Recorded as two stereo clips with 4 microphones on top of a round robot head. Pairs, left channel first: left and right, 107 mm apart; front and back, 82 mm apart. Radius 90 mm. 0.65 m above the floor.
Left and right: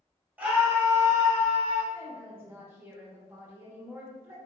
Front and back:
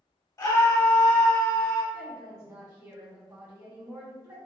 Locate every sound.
0.4 s a scream: 20° right, 1.1 m; by 1.8 s 65° right, 1.7 m
1.9 s a woman speaking: 145° right, 1.2 m